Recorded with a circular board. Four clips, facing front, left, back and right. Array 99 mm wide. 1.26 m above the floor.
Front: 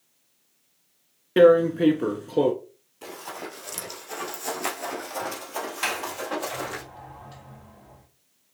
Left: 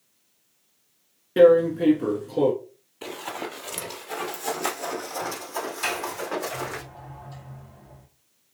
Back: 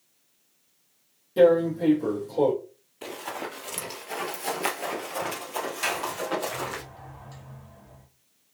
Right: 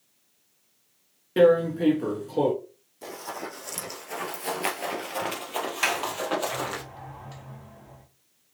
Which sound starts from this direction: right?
A sliding door, at 5.8 s.